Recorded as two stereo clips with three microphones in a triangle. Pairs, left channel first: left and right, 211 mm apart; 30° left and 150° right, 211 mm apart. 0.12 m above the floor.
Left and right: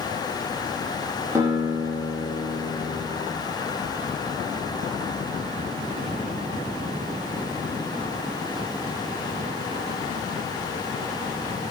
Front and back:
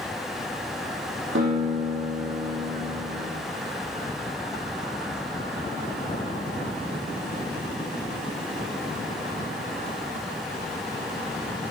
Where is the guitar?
165° right, 5 m.